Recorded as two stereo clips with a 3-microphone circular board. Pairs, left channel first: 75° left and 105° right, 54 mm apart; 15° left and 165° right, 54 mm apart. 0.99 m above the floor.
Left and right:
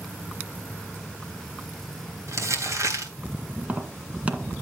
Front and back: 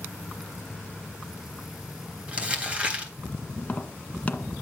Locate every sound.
2.3 s crumpling: 100° right, 3 m
3.6 s tapping: 45° right, 1.7 m